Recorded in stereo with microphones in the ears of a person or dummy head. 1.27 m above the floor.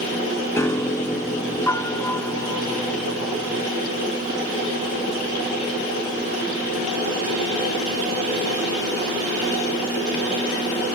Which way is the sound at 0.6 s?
15° left (ahead or behind).